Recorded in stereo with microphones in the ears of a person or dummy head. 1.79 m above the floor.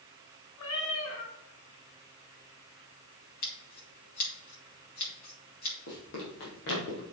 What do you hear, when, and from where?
0.6 s a cat meowing: 55° left (ahead or behind), 1.9 m
3.4 s scissors: 55° left (ahead or behind), 4.5 m
5.9 s running footsteps: 45° left (ahead or behind), 3.5 m; by 7.0 s 50° left (ahead or behind), 3 m